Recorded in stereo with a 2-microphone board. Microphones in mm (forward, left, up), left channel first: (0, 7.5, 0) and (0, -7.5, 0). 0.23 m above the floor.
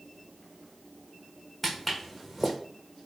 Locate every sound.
1.6 s footsteps: centre (ahead or behind), 0.7 m